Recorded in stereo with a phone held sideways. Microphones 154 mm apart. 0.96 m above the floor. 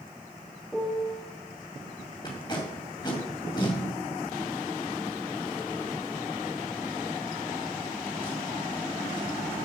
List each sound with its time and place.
0.7 s a piano: 5° left (ahead or behind), 0.6 m
2.2 s tape being pulled: 30° left (ahead or behind), 1.7 m